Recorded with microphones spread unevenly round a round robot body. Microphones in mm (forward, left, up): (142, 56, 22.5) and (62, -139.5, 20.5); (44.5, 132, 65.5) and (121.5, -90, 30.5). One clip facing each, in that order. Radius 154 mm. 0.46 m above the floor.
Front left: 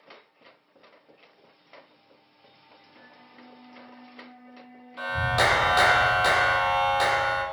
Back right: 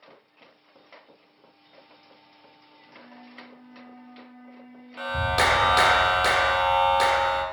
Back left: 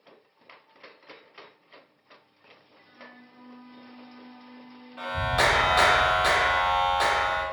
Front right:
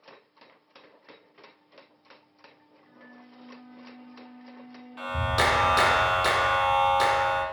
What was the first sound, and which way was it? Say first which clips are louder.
A flute: back right 8 dB, front right 1 dB; 140° left.